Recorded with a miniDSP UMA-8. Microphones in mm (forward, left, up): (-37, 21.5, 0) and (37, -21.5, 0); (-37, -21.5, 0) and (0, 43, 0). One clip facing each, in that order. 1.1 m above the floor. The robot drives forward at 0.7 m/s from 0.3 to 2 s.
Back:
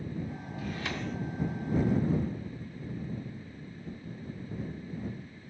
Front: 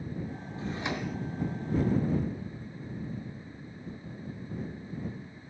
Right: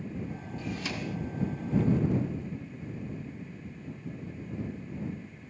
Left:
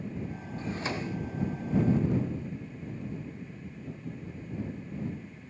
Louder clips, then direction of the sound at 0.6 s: Front 3 dB, left 2 dB; 25° left.